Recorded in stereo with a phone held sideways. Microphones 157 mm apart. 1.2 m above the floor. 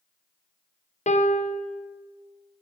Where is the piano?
45° left (ahead or behind), 0.7 m.